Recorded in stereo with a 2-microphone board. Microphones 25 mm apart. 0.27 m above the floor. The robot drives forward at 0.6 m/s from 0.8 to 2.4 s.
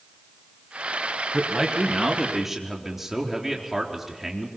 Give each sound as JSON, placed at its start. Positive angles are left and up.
{"t": 1.3, "sound": "a man speaking", "side_deg": -10, "distance_m": 3.0}